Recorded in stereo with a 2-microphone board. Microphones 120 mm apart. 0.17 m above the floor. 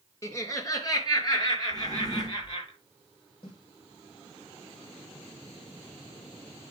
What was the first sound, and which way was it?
Laughter, 25° left (ahead or behind).